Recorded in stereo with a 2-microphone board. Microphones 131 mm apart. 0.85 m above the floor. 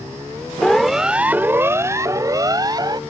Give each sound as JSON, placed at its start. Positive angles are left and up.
{"t": 0.6, "sound": "a siren", "side_deg": 5}